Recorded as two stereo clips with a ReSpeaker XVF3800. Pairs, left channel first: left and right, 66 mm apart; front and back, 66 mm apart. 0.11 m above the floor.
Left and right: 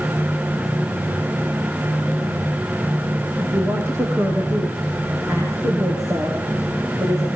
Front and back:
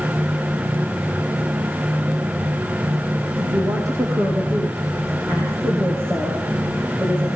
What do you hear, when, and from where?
3.4 s a woman speaking: 140° right, 6 m; by 7.3 s 120° right, 7.5 m